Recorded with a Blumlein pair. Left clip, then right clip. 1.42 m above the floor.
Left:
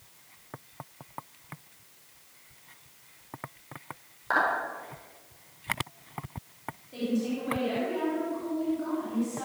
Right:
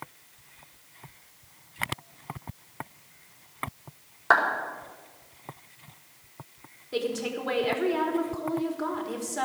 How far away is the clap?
About 5 m.